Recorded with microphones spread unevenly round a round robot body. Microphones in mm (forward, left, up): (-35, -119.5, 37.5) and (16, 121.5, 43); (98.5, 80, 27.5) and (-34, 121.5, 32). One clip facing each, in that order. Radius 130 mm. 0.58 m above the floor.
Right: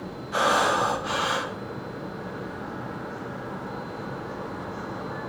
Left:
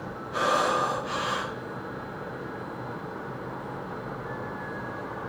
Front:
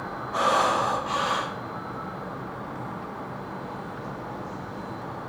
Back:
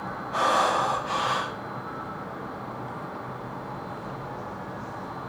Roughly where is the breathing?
Behind right.